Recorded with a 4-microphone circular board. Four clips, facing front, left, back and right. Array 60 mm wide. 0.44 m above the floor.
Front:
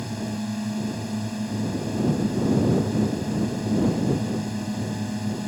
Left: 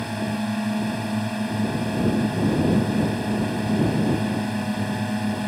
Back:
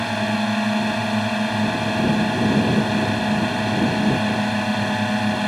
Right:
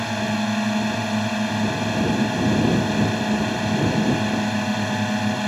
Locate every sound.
0.0 s a drone: 160° right